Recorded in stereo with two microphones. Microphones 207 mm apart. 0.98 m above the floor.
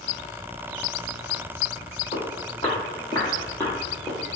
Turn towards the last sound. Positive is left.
turn(degrees=0)  # may be behind; listen again after turning